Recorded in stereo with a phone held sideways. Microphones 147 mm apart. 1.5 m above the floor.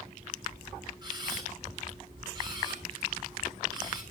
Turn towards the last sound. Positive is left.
turn(degrees=-30)  # may be behind; listen again after turning